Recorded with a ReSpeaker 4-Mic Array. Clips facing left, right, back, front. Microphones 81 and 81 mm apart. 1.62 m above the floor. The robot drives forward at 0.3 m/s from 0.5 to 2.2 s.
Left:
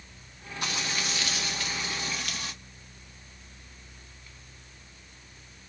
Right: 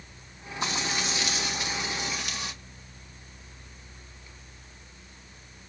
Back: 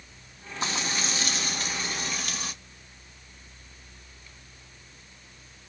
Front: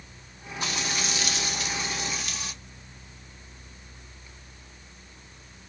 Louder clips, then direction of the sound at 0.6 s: Right 3 dB, back 1 dB; 140° right.